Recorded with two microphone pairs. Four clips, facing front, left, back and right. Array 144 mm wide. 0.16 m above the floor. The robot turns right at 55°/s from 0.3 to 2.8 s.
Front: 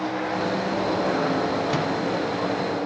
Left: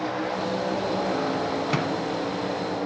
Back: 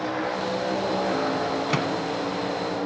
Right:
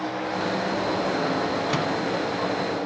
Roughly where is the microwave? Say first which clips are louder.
Right 1 dB, front 1 dB; behind.